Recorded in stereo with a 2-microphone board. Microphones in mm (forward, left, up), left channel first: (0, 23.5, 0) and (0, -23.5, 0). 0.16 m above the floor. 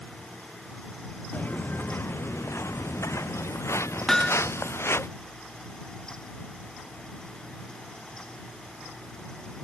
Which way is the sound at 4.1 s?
10° left (ahead or behind).